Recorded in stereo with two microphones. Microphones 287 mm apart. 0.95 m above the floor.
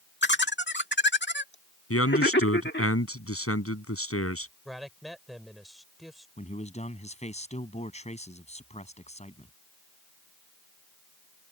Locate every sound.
0.2 s laughter: 40° left (ahead or behind)
1.9 s a man speaking: 50° left (ahead or behind)
4.7 s a man speaking: centre (ahead or behind)
6.4 s a man speaking: 25° left (ahead or behind)